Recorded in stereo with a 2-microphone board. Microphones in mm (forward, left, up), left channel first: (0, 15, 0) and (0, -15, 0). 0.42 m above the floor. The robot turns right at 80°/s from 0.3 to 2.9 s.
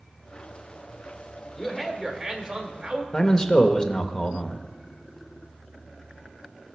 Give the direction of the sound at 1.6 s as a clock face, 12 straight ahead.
7 o'clock.